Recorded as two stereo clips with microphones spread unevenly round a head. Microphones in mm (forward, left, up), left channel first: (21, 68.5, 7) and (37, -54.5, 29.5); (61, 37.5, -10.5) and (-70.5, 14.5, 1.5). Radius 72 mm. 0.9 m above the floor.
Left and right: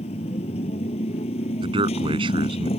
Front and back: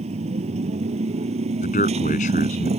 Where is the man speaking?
35° right.